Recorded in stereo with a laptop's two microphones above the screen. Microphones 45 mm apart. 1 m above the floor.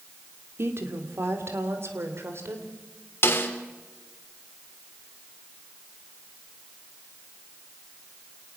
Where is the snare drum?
55° left (ahead or behind), 3 m.